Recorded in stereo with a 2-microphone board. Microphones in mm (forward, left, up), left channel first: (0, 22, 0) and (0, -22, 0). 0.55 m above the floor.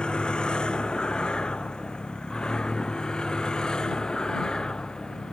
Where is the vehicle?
20° left (ahead or behind); by 5.3 s 15° left (ahead or behind).